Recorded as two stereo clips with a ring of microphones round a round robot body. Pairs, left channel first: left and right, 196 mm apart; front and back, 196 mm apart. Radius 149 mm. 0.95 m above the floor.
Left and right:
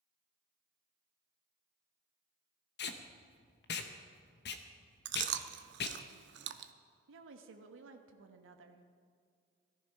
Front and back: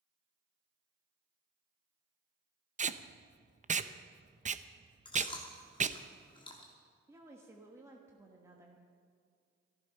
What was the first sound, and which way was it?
Tape being pulled, 125° left.